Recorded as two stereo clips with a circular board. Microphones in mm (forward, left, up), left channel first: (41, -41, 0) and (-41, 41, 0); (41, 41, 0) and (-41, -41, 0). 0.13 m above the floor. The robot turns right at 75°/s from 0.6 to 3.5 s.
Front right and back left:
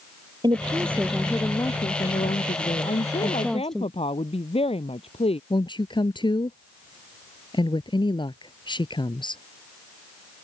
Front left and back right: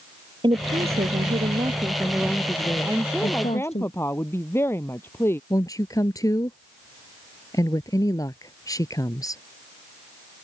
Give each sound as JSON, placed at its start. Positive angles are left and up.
{"t": 0.4, "sound": "a woman speaking", "azimuth_deg": -175}
{"t": 2.9, "sound": "a woman speaking", "azimuth_deg": -70}
{"t": 5.5, "sound": "a woman speaking", "azimuth_deg": -10}